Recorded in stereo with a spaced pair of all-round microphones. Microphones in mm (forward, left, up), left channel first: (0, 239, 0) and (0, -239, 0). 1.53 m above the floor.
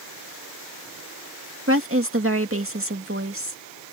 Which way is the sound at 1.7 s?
25° right (ahead or behind).